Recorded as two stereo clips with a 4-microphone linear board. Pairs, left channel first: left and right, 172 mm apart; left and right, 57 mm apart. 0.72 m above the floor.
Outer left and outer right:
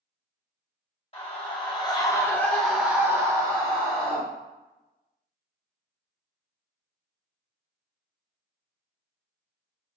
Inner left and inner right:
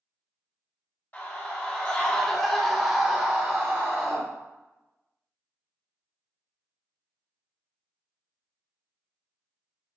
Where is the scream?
35° left (ahead or behind), 1.4 m; by 4.2 s 35° right (ahead or behind), 1.3 m.